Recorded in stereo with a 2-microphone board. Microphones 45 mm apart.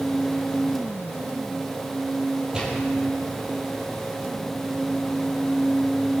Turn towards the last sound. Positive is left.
turn(degrees=-20)  # may be behind; listen again after turning